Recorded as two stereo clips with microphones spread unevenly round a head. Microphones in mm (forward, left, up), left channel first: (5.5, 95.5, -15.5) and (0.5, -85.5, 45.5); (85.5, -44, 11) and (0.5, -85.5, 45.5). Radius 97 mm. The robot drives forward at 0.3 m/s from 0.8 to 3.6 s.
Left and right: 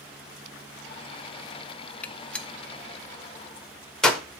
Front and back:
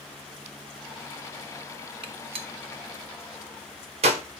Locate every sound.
2.0 s a gunshot: straight behind, 0.5 m